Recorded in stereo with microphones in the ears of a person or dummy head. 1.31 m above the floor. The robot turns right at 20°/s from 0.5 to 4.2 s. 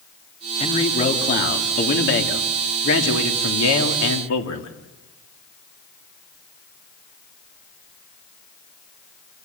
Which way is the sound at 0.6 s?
35° left.